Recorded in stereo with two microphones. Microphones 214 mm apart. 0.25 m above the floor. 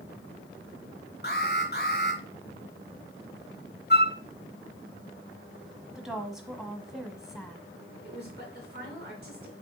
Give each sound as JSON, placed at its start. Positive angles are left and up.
{"t": 1.2, "sound": "an alarm", "side_deg": 45, "distance_m": 2.0}
{"t": 3.9, "sound": "a flute", "side_deg": 50, "distance_m": 0.6}
{"t": 6.0, "sound": "a woman speaking", "side_deg": -5, "distance_m": 1.2}
{"t": 8.0, "sound": "a woman speaking", "side_deg": -45, "distance_m": 3.5}